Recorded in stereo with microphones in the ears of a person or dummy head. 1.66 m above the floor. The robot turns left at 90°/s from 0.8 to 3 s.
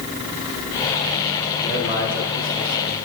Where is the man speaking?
Straight ahead, 5 m; by 3.0 s 125° right, 5 m.